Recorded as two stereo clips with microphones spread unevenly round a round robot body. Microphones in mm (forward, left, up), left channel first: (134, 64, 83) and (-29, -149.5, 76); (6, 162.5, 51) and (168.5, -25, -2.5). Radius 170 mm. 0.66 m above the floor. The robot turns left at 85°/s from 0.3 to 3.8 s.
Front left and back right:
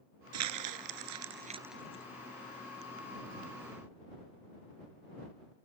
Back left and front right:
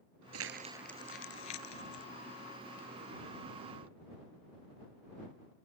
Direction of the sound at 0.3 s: 100° right.